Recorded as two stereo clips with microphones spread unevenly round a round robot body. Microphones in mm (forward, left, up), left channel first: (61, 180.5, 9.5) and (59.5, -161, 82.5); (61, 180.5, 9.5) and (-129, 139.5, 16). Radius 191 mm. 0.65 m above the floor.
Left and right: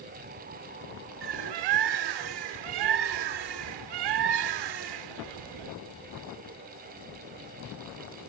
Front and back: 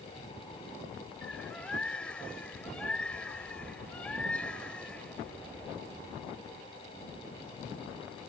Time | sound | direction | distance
1.2 | a bird | 75° right | ?